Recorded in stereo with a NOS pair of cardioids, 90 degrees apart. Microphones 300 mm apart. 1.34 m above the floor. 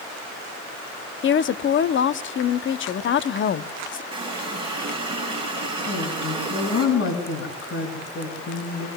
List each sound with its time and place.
1.2 s a woman speaking: 40° left, 0.7 m
4.1 s a running tap: 15° right, 6 m
5.9 s a woman speaking: 45° left, 6.5 m